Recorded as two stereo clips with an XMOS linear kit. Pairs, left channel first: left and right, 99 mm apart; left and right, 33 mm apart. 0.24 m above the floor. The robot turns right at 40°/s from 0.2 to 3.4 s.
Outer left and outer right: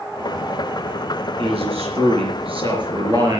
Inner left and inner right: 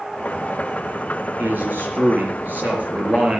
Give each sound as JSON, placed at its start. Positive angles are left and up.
{"t": 1.4, "sound": "a man speaking", "azimuth_deg": -110, "distance_m": 4.5}